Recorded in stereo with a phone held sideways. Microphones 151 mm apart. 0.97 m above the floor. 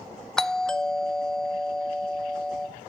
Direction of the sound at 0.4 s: 5° left (ahead or behind).